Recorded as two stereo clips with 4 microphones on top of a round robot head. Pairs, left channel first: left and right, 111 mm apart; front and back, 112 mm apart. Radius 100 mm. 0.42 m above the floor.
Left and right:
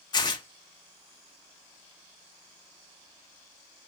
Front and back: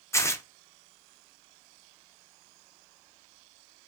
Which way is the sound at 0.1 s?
55° left.